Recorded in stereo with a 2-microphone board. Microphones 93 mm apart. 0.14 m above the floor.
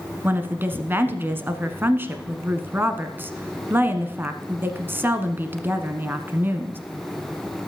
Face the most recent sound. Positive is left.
turn(degrees=-25)  # may be behind; listen again after turning